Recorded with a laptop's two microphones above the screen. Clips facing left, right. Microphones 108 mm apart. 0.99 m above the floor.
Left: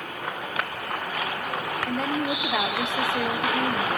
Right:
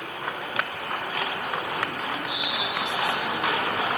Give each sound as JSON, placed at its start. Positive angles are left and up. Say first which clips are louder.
{"t": 1.9, "sound": "a woman speaking", "louder": "left 5 dB", "side_deg": 80, "distance_m": 2.0}